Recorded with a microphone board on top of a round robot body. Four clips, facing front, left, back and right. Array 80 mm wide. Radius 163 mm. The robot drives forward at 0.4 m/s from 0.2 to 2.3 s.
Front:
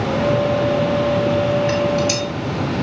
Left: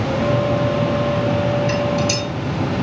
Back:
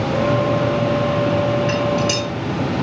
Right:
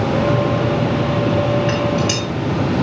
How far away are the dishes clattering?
About 5.5 m.